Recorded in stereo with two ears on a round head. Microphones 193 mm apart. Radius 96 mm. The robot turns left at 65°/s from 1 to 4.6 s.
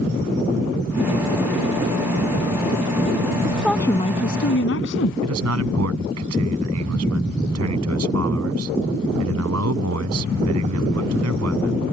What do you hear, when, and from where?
3.4 s a woman speaking: 165° right; by 5.1 s 120° left
5.2 s a man speaking: 85° right